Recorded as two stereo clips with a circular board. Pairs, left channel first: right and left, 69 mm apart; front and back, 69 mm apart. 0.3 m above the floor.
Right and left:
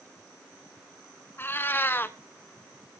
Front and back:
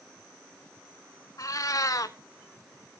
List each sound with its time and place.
1.4 s a cat meowing: 30° right, 0.8 m